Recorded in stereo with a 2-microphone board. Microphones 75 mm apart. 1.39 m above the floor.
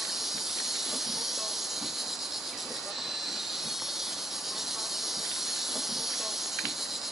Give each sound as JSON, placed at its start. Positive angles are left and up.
{"t": 0.0, "sound": "an insect", "side_deg": -5}